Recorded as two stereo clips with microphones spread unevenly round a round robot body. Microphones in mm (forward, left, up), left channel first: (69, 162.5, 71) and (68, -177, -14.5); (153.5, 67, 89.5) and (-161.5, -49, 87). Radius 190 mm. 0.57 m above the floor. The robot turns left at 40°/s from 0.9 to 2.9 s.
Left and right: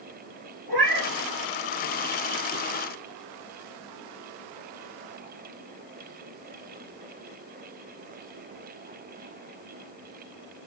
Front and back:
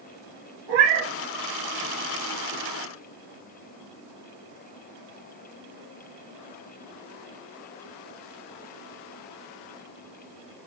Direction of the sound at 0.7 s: 160° right.